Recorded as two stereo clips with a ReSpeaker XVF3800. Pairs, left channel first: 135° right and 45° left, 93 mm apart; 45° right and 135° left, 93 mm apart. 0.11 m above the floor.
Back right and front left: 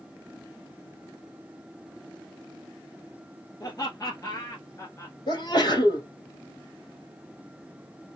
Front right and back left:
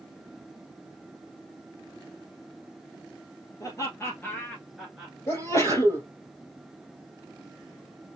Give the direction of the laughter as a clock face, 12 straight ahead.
3 o'clock.